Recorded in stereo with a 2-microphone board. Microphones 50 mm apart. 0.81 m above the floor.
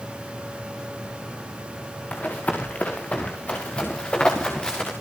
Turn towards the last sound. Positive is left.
turn(degrees=15)  # may be behind; listen again after turning